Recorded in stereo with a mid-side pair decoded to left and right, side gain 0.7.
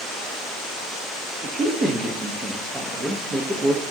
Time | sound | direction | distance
1.4 | a man speaking | 25° right | 1.5 m